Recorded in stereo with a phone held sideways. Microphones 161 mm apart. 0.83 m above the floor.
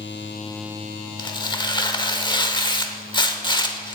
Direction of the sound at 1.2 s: 30° left (ahead or behind).